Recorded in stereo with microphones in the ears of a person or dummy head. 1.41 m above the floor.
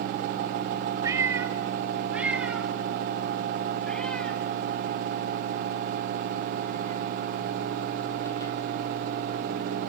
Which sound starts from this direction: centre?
A cat meowing, at 1.0 s.